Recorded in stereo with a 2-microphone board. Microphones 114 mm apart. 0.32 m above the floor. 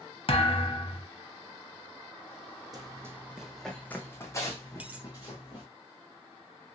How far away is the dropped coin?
About 0.6 m.